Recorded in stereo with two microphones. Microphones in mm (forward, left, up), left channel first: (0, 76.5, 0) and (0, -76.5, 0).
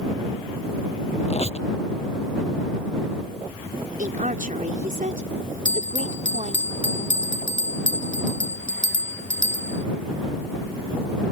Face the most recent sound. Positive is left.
turn(degrees=35)  # may be behind; listen again after turning